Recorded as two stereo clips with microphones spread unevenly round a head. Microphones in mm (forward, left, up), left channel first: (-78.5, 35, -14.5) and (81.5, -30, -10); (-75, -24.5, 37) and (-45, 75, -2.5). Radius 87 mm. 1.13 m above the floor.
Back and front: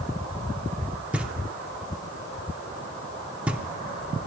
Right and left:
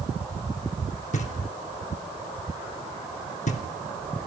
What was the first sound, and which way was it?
Knocking, 105° right.